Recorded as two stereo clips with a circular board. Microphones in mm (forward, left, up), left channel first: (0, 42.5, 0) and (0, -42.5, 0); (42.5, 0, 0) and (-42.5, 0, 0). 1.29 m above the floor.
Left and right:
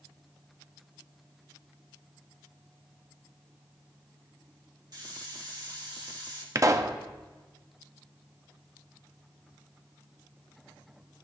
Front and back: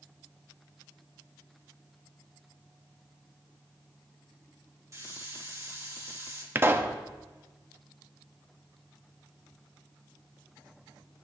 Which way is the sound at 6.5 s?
125° right.